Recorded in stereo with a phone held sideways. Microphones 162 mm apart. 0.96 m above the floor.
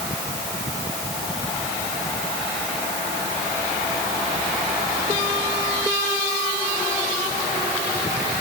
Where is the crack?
I don't hear a crack.